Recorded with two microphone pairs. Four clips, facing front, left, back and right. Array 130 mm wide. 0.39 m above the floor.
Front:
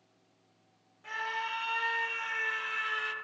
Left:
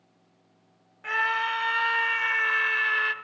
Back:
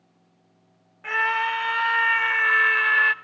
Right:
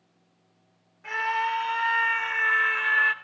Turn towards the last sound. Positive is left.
turn(degrees=175)